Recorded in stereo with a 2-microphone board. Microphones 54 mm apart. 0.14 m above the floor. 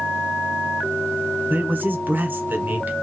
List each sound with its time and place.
1.5 s a man speaking: 35° right (ahead or behind), 1.4 m